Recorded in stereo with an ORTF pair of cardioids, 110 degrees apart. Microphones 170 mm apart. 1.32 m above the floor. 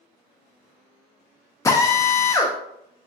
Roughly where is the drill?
Ahead.